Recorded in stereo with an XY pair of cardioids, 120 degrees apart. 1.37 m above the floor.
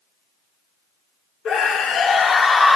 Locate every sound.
1.4 s a scream: 55° left, 1.2 m; by 2.8 s 15° left, 0.5 m